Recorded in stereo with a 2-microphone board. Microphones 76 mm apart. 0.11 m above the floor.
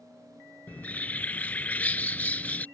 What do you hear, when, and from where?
0.7 s a bird: 20° left (ahead or behind)